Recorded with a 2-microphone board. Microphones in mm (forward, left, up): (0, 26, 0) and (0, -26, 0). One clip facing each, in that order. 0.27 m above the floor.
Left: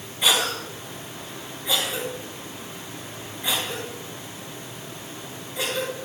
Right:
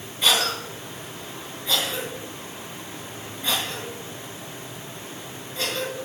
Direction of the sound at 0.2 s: 15° left (ahead or behind).